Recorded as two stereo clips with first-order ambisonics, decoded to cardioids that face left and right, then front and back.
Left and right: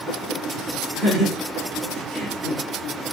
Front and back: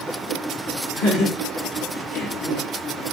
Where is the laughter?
5° left, 1.6 m; by 2.7 s 15° left, 2.5 m.